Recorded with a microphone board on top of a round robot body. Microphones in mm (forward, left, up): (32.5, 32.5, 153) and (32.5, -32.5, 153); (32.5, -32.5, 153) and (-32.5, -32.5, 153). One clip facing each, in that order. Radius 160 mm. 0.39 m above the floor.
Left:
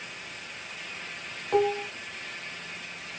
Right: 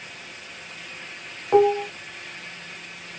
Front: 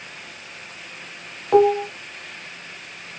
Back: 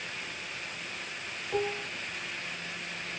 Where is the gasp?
No gasp in this recording.